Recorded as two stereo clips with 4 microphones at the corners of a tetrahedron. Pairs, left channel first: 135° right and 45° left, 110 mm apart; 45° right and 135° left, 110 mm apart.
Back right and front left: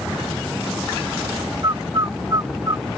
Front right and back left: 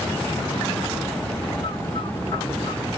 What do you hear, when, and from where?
1.6 s a bird: 10° right